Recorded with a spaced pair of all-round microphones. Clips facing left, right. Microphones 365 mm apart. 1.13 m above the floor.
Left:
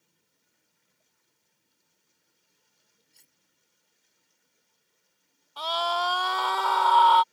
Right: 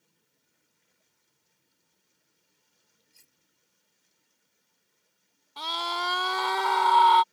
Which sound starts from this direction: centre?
Cutlery clinking, at 3.1 s.